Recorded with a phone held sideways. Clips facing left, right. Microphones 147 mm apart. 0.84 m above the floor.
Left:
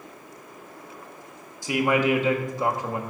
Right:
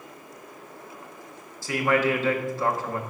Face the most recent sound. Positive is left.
turn(degrees=15)  # may be behind; listen again after turning